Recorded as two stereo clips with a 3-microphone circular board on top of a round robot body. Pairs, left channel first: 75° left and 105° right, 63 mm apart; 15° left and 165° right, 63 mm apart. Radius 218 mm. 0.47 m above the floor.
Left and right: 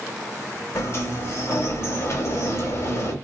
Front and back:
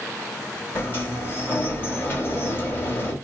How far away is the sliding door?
About 1.8 m.